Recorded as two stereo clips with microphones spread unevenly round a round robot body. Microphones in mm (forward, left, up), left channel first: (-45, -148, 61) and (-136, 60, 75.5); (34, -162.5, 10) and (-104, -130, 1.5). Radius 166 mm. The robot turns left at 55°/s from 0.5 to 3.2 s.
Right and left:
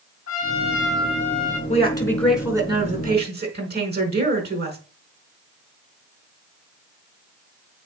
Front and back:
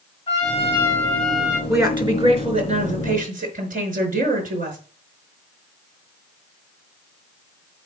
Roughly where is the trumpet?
Ahead right.